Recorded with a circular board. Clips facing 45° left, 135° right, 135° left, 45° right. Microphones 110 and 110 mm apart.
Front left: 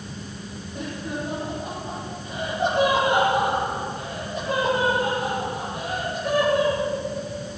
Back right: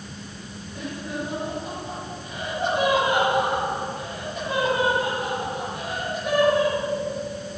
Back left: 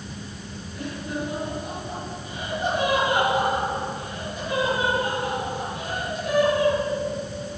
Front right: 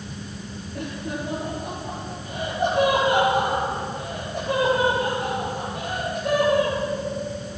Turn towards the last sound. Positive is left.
turn(degrees=-25)